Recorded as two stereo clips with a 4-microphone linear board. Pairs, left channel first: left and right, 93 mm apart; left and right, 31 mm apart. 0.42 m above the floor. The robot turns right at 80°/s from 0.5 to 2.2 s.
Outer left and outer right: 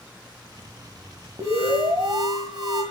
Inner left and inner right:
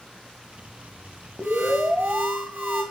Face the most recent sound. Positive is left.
turn(degrees=-50)